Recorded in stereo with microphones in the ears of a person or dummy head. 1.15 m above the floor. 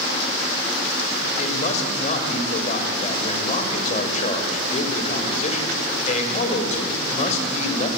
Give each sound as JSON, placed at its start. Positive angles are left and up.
{"t": 1.4, "sound": "a man speaking", "side_deg": 45, "distance_m": 5.0}